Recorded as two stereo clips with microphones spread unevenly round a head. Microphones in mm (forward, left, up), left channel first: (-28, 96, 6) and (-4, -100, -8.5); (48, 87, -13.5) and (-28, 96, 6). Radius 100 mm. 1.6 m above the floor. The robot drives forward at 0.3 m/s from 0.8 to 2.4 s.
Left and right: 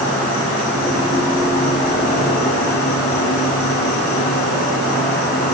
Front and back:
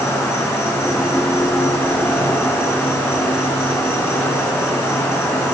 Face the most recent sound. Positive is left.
turn(degrees=50)